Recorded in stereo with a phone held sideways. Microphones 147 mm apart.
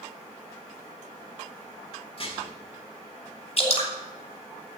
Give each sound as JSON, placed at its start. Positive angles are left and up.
{"t": 2.2, "sound": "dishes clattering", "side_deg": 45, "distance_m": 2.0}
{"t": 3.6, "sound": "dripping", "side_deg": 50, "distance_m": 2.5}